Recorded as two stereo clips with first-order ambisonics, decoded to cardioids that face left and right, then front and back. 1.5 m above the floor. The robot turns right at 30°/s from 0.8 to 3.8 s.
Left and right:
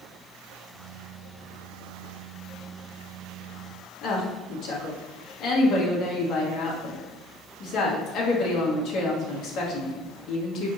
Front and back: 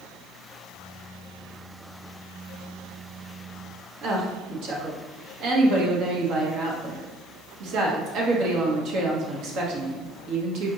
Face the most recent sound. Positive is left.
turn(degrees=140)